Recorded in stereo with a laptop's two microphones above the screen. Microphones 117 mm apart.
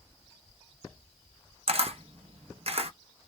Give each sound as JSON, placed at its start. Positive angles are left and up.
{"t": 1.7, "sound": "a camera shutter", "side_deg": -55, "distance_m": 0.5}